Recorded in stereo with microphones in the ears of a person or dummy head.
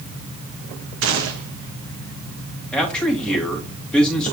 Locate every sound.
1.0 s a gunshot: 65° right (ahead or behind), 1.0 m
2.7 s a man speaking: 10° left (ahead or behind), 2.5 m